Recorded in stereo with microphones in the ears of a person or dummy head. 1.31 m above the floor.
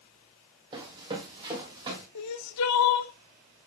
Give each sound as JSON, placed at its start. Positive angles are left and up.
{"t": 0.7, "sound": "running footsteps", "side_deg": -25, "distance_m": 3.0}
{"t": 2.1, "sound": "crying", "side_deg": 85, "distance_m": 0.7}